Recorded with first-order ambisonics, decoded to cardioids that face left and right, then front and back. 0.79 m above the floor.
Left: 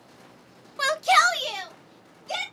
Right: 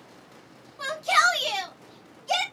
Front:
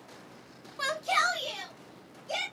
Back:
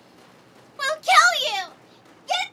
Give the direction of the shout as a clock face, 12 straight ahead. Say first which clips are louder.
Left 2 dB, back 11 dB; 8 o'clock.